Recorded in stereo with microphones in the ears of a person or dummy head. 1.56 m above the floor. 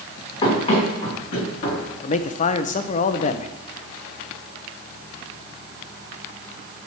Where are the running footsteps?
35° left (ahead or behind), 5.5 m; by 1.9 s 45° left (ahead or behind), 4.5 m.